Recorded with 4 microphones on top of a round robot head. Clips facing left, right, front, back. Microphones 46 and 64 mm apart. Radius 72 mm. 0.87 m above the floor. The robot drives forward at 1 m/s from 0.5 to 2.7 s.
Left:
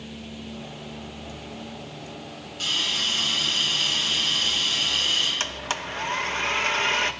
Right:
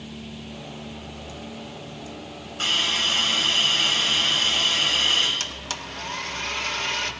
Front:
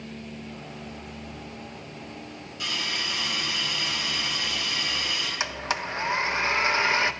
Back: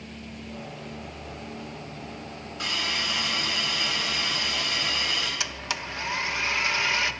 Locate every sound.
2.6 s a hiss: 130° right, 4.5 m
5.4 s a blender: 45° left, 0.7 m